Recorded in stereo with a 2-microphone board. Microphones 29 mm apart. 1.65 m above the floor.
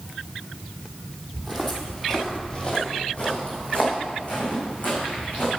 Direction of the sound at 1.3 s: 10° left (ahead or behind).